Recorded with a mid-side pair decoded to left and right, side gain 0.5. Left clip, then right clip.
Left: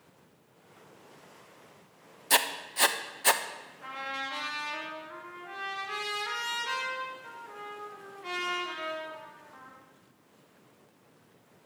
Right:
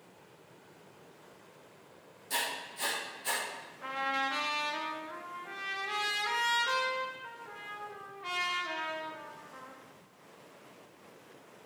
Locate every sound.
2.3 s writing: 70° left, 0.8 m
3.8 s a trumpet: 20° right, 2.5 m